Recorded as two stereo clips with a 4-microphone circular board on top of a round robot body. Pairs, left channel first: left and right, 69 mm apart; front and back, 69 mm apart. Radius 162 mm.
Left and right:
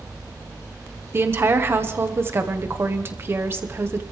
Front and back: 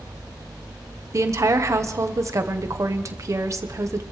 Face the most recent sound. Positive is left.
turn(degrees=-140)